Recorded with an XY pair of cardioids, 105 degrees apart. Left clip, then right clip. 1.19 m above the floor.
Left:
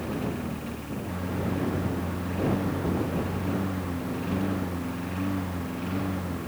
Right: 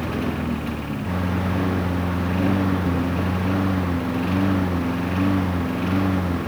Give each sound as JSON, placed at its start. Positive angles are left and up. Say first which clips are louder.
{"t": 0.0, "sound": "a lawn mower", "louder": "right 6 dB", "azimuth_deg": -60}